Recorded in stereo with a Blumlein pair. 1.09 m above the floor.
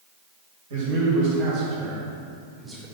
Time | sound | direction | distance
0.7 | a man speaking | 55° right | 1.8 m